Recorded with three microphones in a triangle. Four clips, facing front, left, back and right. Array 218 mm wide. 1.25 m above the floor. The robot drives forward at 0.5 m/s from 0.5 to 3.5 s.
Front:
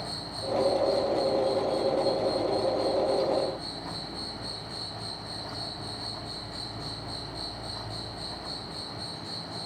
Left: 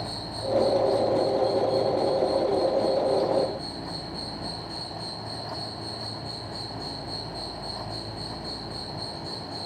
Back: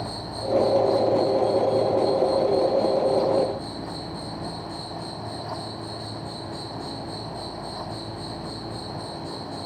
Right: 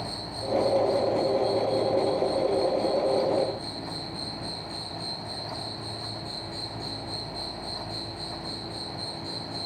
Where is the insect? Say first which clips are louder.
Left 2 dB, back 5 dB; 90° right, 1.4 m; by 9.7 s 140° right, 2 m.